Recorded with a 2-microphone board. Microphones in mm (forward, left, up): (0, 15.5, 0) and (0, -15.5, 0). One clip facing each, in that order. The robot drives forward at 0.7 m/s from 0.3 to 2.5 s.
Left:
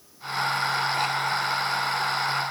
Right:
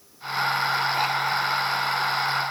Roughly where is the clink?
No clink in this recording.